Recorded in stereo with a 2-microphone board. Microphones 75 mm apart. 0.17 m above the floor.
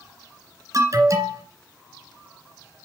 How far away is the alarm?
About 2 m.